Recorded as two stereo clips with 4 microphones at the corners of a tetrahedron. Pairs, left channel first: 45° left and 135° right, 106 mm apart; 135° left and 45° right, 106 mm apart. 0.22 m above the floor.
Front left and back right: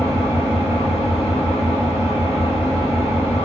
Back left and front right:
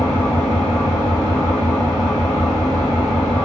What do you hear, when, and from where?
0.0 s an engine running: 75° left, 2 m